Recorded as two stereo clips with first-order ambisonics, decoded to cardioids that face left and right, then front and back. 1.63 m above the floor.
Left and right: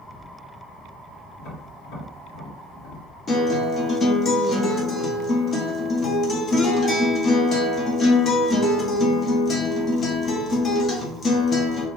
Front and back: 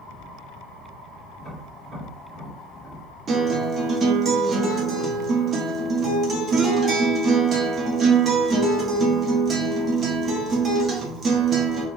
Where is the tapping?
105° left, 1.5 m.